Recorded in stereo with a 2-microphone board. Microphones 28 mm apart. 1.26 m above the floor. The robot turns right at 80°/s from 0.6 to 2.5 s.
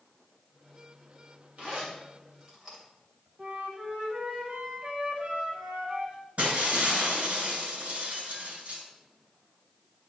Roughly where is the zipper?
Right.